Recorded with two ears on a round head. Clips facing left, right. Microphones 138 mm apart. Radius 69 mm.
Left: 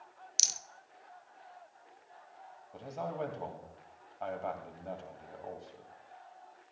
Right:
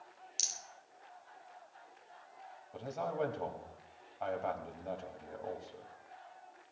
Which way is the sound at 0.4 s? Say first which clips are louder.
Left 2 dB; 70° left (ahead or behind).